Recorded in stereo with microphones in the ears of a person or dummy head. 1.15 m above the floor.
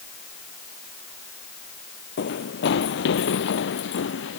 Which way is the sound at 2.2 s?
55° left (ahead or behind).